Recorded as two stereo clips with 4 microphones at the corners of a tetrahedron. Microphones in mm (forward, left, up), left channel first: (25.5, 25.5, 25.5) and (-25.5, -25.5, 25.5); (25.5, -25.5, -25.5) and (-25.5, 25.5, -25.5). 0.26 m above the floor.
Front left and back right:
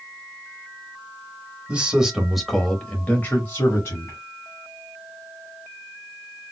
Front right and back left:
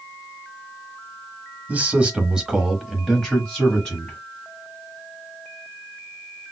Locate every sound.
1.7 s a man speaking: 175° left, 1.0 m; by 4.2 s 15° left, 1.3 m